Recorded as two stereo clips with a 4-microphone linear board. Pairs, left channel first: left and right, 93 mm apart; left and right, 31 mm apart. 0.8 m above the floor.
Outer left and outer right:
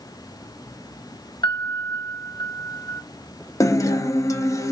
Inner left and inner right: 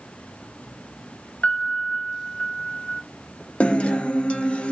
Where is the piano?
50° left (ahead or behind), 0.8 m.